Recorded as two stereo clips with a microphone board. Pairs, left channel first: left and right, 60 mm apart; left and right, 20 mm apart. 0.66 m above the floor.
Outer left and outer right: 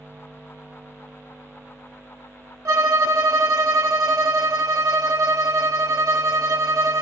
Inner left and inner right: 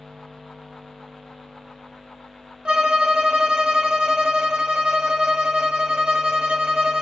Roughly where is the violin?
Right.